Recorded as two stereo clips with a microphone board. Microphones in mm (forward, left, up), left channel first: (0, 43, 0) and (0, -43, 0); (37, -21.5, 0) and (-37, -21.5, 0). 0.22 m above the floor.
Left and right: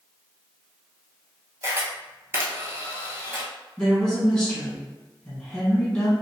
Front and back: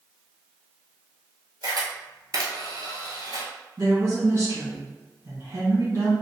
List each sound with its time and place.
1.6 s a camera shutter: 150° right, 1.0 m
3.8 s a woman speaking: 165° left, 1.6 m